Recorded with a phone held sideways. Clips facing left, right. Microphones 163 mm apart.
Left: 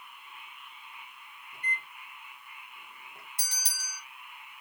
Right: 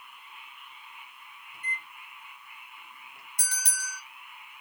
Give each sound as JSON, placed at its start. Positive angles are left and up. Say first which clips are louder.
{"t": 1.5, "sound": "a microwave", "louder": "left 2 dB", "side_deg": 55, "distance_m": 1.3}
{"t": 3.4, "sound": "a bell", "louder": "right 6 dB", "side_deg": 25, "distance_m": 2.0}